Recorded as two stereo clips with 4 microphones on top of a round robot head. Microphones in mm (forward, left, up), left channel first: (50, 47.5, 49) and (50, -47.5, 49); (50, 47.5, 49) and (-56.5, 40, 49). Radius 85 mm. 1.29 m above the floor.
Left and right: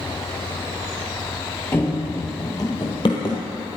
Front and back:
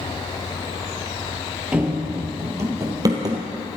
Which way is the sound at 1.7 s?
125° left.